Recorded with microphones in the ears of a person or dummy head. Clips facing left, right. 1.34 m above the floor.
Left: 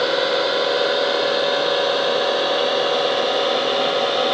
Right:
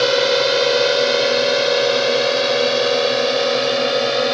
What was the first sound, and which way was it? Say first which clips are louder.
A drone: right 3 dB; 40° right (ahead or behind).